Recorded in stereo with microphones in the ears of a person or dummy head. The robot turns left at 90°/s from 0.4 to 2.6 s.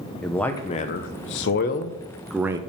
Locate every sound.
0.2 s a man speaking: 175° left, 0.6 m; by 2.6 s 25° right, 0.6 m